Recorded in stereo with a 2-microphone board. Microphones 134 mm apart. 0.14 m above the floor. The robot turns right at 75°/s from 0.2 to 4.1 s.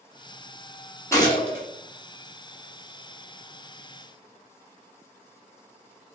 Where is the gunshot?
20° left, 1.0 m; by 1.6 s 60° left, 1.0 m.